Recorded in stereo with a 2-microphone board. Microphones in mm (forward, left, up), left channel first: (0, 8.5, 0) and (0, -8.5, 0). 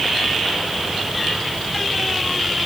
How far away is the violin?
I don't hear a violin.